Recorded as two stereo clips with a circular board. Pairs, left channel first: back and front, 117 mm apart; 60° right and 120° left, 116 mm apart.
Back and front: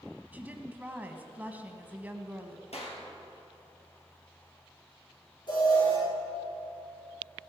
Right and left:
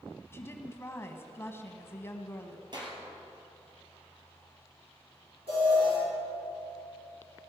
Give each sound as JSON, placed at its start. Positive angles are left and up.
{"t": 0.3, "sound": "a woman speaking", "azimuth_deg": -50, "distance_m": 1.1}
{"t": 2.7, "sound": "a clap", "azimuth_deg": 165, "distance_m": 3.0}
{"t": 5.5, "sound": "an alarm", "azimuth_deg": 140, "distance_m": 6.0}